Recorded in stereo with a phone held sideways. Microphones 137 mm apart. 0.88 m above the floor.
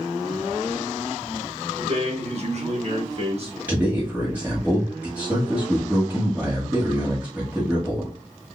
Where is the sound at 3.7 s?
10° right (ahead or behind), 1.0 m.